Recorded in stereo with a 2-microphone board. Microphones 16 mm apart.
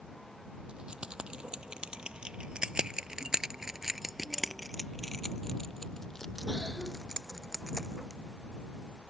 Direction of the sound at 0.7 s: 75° right (ahead or behind).